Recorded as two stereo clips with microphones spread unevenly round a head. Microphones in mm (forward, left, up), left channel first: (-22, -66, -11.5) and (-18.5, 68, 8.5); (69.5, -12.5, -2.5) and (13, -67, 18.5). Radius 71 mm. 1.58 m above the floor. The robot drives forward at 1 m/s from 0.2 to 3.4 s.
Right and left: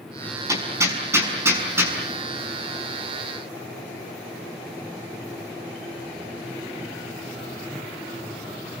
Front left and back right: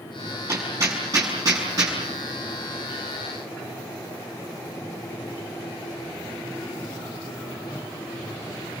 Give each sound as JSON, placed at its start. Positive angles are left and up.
{"t": 0.5, "sound": "hammering", "azimuth_deg": 155, "distance_m": 5.5}